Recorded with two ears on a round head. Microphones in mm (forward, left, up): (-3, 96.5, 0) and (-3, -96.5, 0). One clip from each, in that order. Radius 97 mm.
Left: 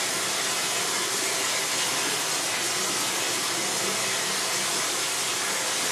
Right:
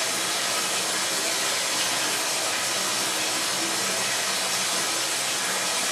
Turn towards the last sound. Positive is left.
turn(degrees=-5)  # may be behind; listen again after turning